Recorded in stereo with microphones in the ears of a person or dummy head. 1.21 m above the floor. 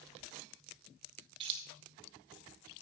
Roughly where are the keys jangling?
Right.